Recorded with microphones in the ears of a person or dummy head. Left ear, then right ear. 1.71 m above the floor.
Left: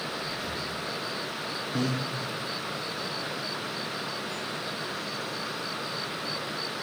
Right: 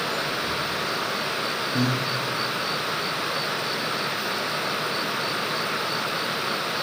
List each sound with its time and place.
0.2 s breathing: 5° right (ahead or behind), 3 m
1.7 s breathing: 30° left (ahead or behind), 1.7 m